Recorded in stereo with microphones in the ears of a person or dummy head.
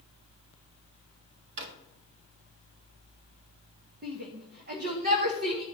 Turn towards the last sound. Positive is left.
turn(degrees=-45)  # may be behind; listen again after turning